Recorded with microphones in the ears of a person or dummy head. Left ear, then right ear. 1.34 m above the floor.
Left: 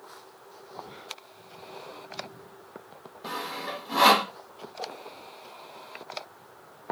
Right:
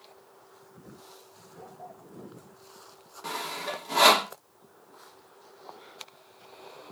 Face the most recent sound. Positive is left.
turn(degrees=-65)  # may be behind; listen again after turning